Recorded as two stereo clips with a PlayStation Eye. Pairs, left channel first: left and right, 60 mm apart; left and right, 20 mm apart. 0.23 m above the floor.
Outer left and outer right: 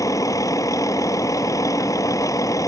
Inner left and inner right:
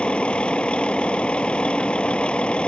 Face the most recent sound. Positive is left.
turn(degrees=75)  # may be behind; listen again after turning